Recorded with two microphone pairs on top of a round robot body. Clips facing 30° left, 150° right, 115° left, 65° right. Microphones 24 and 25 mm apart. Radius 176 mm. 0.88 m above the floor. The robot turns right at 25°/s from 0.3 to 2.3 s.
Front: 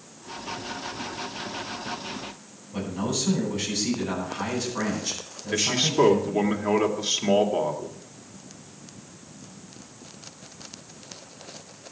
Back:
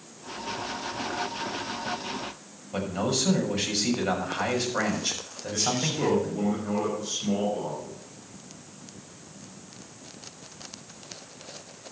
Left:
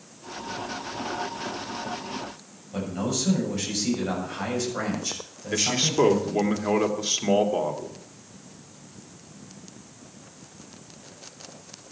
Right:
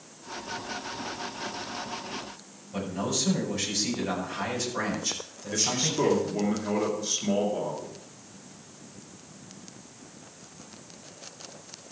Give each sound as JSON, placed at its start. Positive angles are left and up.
{"t": 2.7, "sound": "a man speaking", "azimuth_deg": -175, "distance_m": 6.5}
{"t": 5.5, "sound": "a man speaking", "azimuth_deg": 75, "distance_m": 2.5}